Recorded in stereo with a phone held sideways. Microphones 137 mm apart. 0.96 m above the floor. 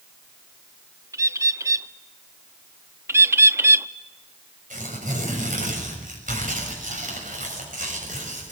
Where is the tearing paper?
75° right (ahead or behind), 6.5 m.